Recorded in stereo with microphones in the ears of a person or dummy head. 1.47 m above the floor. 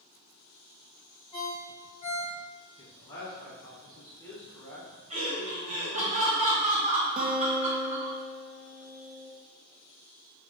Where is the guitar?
30° right (ahead or behind), 0.5 m.